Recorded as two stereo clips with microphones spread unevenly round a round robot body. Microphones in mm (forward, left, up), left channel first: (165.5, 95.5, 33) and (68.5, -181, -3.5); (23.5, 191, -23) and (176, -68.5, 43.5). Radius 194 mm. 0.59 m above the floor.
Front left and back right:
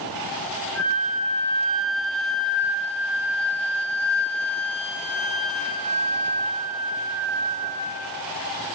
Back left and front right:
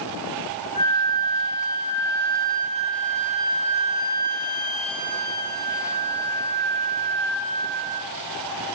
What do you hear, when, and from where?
0.8 s a flute: 130° left, 1.1 m